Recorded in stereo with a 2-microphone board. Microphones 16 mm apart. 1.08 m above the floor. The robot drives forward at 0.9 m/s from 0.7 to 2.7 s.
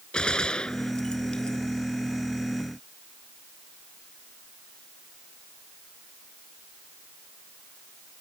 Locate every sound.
0.1 s a gunshot: 60° left (ahead or behind); by 1.6 s 65° left (ahead or behind)